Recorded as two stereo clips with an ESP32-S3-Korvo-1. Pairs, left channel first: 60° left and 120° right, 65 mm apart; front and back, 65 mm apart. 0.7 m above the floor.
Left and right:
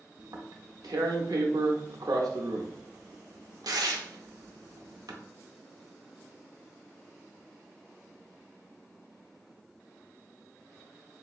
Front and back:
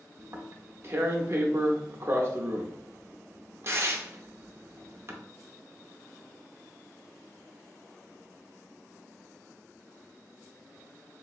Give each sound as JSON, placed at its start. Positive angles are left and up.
{"t": 0.2, "sound": "tearing paper", "azimuth_deg": -130, "distance_m": 0.6}